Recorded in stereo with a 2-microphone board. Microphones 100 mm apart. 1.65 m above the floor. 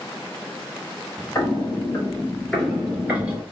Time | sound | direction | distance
1.4 | footsteps | 30° left (ahead or behind) | 1.9 m